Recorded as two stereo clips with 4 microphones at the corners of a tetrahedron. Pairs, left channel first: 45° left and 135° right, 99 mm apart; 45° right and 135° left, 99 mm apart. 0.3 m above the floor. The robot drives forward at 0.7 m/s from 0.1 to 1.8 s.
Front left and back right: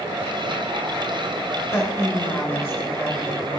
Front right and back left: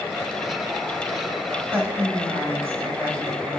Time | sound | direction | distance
1.7 | a woman speaking | 85° left | 1.4 m